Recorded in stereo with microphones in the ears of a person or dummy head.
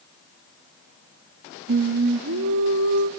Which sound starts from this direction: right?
Singing, at 1.7 s.